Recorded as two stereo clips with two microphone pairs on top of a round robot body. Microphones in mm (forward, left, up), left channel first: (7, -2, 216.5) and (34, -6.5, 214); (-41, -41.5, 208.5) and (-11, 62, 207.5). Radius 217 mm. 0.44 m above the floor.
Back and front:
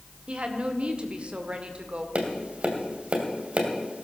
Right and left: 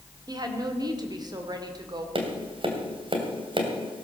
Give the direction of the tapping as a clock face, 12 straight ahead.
11 o'clock.